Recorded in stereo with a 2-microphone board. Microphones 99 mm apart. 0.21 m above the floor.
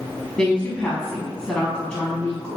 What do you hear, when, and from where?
0.4 s a woman speaking: 10° left (ahead or behind), 1.3 m